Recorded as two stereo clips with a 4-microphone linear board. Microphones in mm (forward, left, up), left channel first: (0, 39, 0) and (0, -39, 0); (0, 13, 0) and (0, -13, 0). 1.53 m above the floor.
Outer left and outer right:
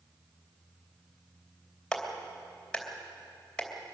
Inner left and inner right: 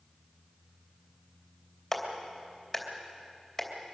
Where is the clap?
10° left (ahead or behind), 3 m.